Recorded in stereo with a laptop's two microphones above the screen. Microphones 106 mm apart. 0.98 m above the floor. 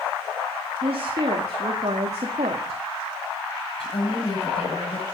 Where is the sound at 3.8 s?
65° left (ahead or behind), 6.5 m.